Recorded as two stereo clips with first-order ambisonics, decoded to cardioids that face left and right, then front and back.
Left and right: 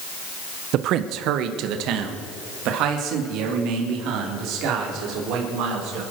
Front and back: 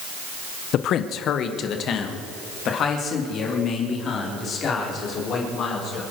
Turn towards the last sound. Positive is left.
turn(degrees=-55)